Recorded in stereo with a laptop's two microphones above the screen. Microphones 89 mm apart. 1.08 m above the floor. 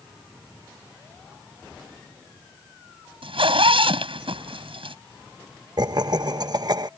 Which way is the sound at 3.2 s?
85° right.